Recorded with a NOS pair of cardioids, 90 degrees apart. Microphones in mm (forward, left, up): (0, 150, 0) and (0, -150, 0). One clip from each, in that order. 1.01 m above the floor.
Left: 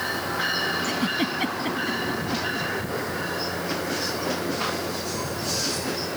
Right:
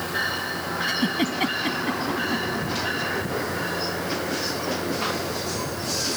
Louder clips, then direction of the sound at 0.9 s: Right 1 dB; 15° right.